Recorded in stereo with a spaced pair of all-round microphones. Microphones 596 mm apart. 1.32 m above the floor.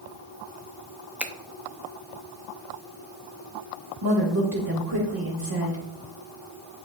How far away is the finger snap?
About 0.7 m.